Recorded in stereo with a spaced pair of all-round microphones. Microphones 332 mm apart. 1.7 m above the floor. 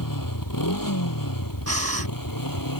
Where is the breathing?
45° right (ahead or behind).